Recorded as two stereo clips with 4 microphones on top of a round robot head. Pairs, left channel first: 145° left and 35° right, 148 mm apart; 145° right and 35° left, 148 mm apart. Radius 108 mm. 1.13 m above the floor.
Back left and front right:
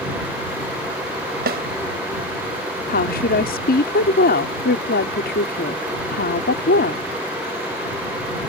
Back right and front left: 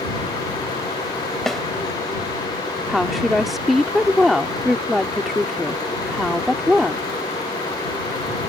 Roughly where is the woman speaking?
Behind left.